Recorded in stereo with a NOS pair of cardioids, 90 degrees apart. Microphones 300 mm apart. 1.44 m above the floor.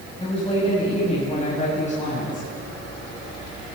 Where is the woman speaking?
20° left, 9.5 m; by 2.5 s 25° left, 9 m.